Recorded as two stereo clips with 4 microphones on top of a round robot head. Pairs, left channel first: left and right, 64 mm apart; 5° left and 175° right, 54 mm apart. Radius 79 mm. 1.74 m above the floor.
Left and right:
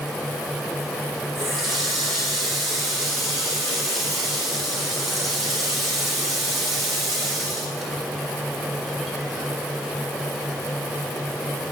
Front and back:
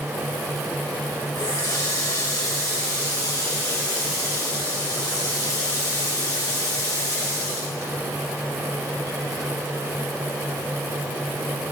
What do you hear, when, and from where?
1.4 s a running tap: straight ahead, 4 m